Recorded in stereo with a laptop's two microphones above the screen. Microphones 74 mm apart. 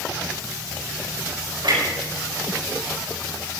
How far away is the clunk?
About 5 m.